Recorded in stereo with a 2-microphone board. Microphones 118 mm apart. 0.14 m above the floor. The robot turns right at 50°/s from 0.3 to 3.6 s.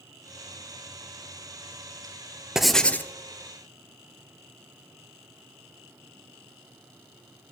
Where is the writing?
5° right (ahead or behind), 0.7 m; by 3.1 s 20° left (ahead or behind), 0.7 m.